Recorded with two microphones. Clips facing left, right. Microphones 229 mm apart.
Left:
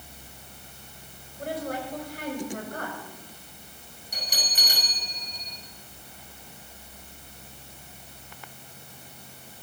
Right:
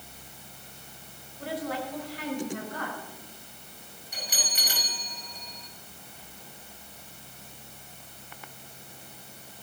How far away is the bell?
About 6 m.